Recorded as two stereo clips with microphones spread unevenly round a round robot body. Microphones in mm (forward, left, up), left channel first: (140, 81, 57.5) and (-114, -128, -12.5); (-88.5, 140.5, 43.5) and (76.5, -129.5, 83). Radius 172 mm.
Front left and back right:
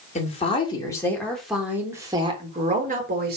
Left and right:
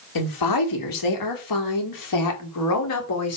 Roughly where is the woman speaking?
Left.